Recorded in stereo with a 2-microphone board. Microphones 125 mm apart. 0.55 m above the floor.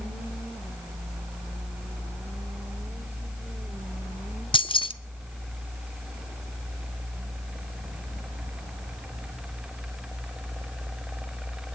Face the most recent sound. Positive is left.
turn(degrees=45)  # may be behind; listen again after turning